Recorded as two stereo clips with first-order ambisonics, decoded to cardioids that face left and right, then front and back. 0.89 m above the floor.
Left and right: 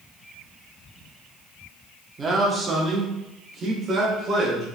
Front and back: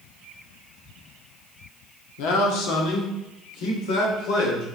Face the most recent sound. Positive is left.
turn(degrees=-25)